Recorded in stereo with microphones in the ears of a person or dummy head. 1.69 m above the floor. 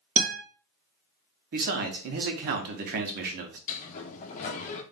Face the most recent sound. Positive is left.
turn(degrees=40)  # may be behind; listen again after turning